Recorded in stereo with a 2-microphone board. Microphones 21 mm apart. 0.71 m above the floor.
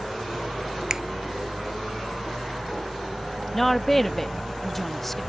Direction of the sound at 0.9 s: 25° right (ahead or behind).